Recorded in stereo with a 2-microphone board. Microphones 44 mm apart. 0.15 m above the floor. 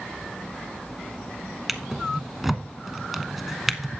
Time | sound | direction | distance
1.7 | a drawer | 5° right (ahead or behind) | 0.8 m